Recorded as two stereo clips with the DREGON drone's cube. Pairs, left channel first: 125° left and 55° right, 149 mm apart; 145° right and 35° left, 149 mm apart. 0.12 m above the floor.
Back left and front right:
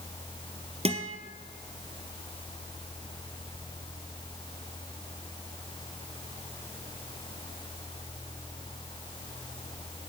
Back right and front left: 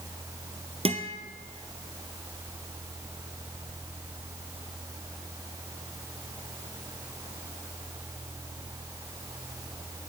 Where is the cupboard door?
No cupboard door in this recording.